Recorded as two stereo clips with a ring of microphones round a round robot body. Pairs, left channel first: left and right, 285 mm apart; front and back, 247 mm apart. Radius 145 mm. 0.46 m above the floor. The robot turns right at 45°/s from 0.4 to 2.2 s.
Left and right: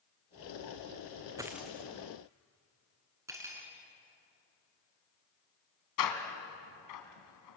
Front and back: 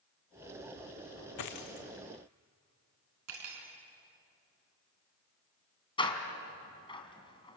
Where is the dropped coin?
10° right, 2 m; by 1.9 s 10° left, 2 m.